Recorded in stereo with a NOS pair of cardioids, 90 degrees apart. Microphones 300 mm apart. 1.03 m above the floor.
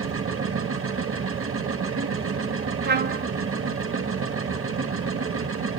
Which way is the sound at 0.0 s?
45° right.